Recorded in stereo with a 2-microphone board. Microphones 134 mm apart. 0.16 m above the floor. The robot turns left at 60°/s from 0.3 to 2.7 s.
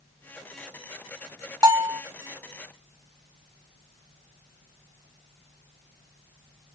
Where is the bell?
25° right (ahead or behind), 0.9 m; by 2.0 s 20° right (ahead or behind), 0.9 m.